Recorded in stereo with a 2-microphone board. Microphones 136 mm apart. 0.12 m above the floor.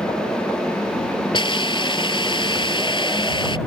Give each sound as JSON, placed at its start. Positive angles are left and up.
{"t": 1.3, "sound": "a hiss", "side_deg": 40}